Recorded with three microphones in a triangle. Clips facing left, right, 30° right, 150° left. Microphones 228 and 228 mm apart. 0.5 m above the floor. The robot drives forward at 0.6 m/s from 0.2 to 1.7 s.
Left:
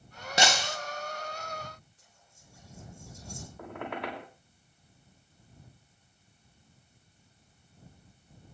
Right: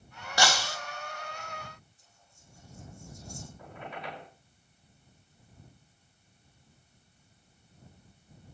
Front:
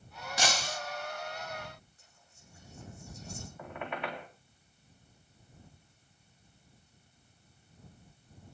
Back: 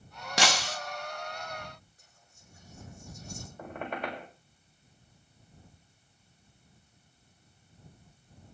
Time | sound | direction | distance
0.4 | breaking glass | 155° left | 1.6 m
2.0 | whispering | 100° left | 8 m
3.6 | a squeak | 100° left | 4 m